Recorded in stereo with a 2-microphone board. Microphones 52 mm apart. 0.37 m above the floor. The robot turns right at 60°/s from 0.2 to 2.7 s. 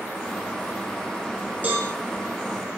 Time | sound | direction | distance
1.6 | a cowbell | 40° right (ahead or behind) | 2.5 m